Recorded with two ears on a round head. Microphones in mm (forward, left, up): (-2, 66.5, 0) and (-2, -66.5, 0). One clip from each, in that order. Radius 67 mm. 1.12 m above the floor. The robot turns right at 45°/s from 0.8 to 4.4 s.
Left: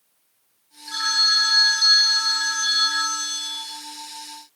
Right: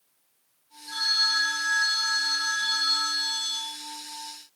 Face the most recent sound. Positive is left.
turn(degrees=-90)